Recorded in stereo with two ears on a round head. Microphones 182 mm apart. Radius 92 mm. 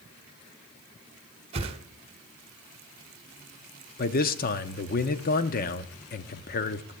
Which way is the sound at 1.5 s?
30° right (ahead or behind).